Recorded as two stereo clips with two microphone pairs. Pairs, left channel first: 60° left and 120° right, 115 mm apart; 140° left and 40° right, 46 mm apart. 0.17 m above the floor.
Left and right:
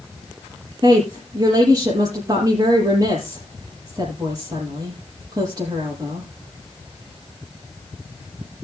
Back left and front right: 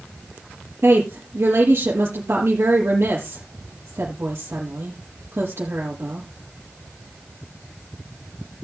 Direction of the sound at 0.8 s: 70° right.